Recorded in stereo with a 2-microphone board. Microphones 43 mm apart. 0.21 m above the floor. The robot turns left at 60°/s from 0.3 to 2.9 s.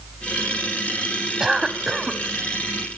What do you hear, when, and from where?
1.4 s a cough: 10° right (ahead or behind), 1.1 m; by 2.2 s 5° left (ahead or behind), 1.1 m